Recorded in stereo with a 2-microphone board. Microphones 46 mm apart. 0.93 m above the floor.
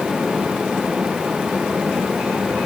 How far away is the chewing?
No chewing in this recording.